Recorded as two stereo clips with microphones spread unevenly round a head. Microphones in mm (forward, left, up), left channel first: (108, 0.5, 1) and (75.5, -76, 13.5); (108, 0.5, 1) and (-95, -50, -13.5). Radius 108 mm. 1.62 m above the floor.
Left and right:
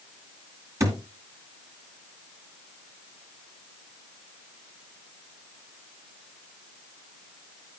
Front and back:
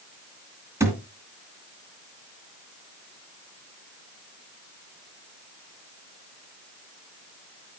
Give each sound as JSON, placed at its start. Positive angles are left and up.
{"t": 0.8, "sound": "a thud", "azimuth_deg": -90, "distance_m": 2.0}